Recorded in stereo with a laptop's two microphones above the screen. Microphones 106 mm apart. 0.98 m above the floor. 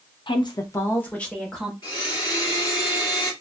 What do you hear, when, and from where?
0.3 s a woman speaking: 45° left (ahead or behind), 0.7 m; by 1.7 s centre (ahead or behind), 1.2 m
1.8 s a blender: 45° left (ahead or behind), 2.5 m